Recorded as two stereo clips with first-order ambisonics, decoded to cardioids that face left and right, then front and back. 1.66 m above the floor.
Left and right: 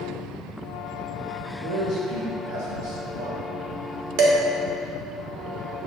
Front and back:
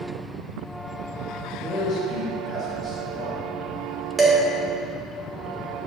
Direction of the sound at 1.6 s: 95° right.